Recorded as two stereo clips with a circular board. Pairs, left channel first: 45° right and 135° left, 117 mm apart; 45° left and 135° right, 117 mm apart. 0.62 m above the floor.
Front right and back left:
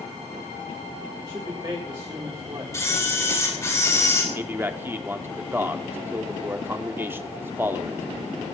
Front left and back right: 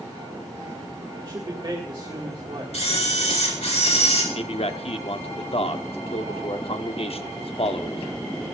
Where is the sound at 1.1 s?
Straight behind, 1.9 m.